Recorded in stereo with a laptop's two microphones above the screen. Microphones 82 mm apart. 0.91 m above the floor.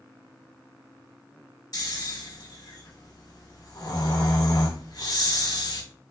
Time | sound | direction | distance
1.7 | snoring | 50° left (ahead or behind) | 1.1 m